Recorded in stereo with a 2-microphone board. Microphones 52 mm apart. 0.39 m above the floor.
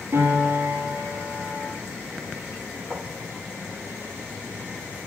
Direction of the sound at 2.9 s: 20° right (ahead or behind).